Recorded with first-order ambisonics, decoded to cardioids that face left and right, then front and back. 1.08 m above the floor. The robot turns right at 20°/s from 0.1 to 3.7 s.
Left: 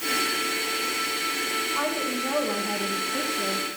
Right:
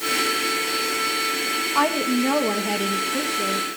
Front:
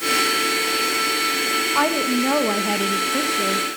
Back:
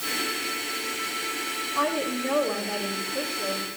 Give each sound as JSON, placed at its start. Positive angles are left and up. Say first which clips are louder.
{"t": 1.8, "sound": "a woman speaking", "louder": "right 6 dB, front 6 dB", "azimuth_deg": -35, "distance_m": 1.0}